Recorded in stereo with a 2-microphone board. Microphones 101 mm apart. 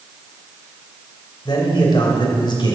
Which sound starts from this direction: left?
A man speaking, at 1.4 s.